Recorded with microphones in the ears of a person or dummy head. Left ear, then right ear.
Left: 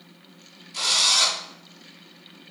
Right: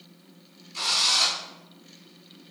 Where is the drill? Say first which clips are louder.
Left 3 dB; 50° left (ahead or behind), 4.5 m.